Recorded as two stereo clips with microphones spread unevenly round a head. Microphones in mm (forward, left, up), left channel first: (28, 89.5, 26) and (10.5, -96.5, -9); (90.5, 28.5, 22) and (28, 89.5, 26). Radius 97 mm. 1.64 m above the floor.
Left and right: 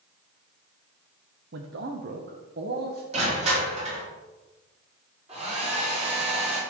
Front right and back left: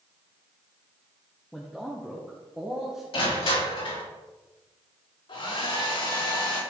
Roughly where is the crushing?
Ahead right.